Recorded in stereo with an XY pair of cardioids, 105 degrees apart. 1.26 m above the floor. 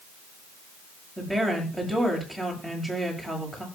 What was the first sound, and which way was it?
A woman speaking, straight ahead.